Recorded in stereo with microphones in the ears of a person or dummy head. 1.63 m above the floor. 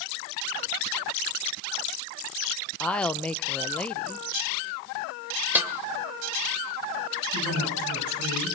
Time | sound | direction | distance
2.8 | a woman speaking | 5° left (ahead or behind) | 1.0 m
5.5 | a snare drum | 10° right (ahead or behind) | 1.7 m
7.3 | a woman speaking | 70° right (ahead or behind) | 9.5 m